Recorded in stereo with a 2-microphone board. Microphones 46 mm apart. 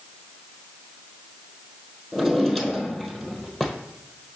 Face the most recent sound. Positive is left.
turn(degrees=5)  # may be behind; listen again after turning